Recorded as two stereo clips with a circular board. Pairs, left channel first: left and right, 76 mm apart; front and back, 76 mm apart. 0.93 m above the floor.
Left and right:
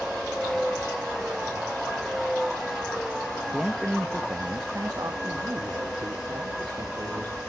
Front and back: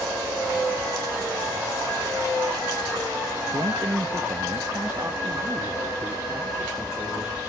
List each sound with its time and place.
3.5 s a man speaking: straight behind, 0.7 m; by 7.4 s 120° right, 2.5 m